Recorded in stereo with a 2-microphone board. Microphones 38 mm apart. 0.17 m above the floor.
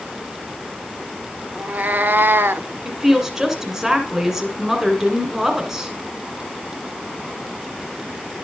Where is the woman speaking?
10° right (ahead or behind), 1.9 m.